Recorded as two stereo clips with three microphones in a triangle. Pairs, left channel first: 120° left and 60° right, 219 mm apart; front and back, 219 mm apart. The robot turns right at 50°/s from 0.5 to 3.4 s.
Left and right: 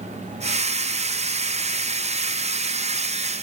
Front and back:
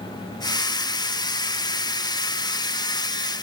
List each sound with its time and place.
Only background noise.